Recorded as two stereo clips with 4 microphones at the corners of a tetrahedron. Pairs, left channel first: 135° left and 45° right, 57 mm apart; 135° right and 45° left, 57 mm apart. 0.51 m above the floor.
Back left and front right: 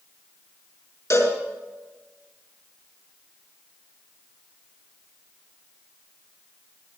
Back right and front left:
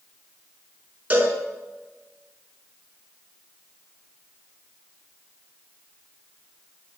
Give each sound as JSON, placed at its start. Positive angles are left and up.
{"t": 1.1, "sound": "a cowbell", "azimuth_deg": 110, "distance_m": 6.0}